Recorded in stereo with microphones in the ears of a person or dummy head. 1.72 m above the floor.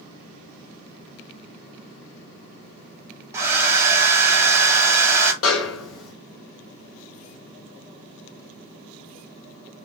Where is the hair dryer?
10° right (ahead or behind), 0.9 m.